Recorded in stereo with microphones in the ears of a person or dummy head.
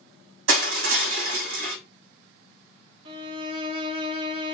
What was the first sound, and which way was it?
Crushing, 80° right.